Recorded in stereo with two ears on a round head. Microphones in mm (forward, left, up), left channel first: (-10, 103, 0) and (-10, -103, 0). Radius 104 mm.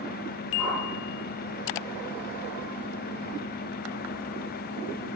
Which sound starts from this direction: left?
A whoosh, at 0.6 s.